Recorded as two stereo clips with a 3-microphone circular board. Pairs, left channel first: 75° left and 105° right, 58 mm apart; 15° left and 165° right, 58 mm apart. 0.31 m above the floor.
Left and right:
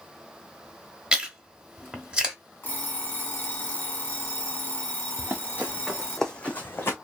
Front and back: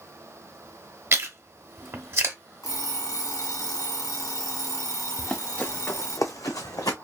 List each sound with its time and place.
1.1 s chewing: 175° right, 1.0 m
2.6 s an alarm clock: 20° left, 1.6 m
5.2 s running footsteps: 60° right, 1.3 m; by 7.0 s 25° left, 1.3 m